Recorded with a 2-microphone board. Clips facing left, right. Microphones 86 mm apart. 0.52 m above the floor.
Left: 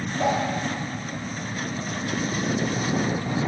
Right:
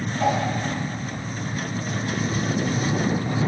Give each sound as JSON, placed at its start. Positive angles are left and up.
{"t": 0.2, "sound": "a whoosh", "side_deg": 35, "distance_m": 3.5}